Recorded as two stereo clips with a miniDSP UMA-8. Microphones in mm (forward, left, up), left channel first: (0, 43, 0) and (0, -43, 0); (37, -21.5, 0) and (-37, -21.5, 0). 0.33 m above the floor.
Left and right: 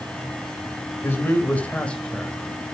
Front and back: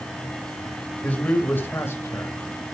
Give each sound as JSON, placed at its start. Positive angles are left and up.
{"t": 1.0, "sound": "a man speaking", "azimuth_deg": 55, "distance_m": 1.6}